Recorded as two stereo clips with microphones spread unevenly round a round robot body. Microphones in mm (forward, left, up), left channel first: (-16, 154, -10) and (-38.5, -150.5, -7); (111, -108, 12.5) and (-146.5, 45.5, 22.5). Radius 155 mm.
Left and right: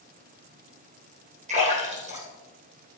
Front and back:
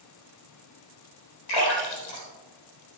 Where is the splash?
25° right, 4 m.